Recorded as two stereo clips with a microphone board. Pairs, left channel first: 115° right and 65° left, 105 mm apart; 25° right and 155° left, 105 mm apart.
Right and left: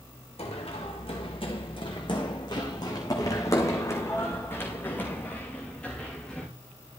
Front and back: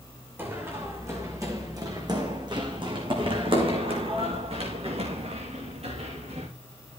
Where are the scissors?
I don't hear scissors.